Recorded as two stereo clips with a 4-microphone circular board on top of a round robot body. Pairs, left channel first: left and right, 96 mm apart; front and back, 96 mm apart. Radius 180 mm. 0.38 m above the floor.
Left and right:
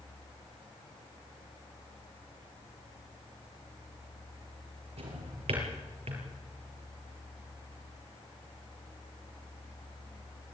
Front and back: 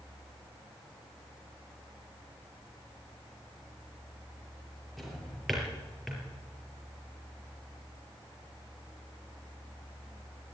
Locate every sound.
5.0 s a drawer: 90° right, 6 m